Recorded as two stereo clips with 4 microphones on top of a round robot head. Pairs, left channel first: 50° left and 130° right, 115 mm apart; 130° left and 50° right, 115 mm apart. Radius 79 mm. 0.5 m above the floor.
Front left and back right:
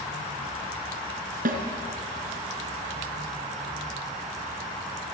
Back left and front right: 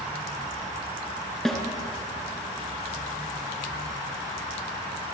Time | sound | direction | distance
1.4 | a snare drum | 140° right | 3 m